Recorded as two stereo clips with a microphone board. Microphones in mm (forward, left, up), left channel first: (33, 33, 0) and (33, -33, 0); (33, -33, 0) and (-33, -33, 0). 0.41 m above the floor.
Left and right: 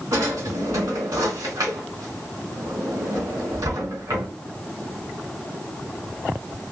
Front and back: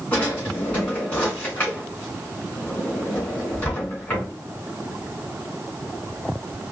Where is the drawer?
65° right, 2.5 m.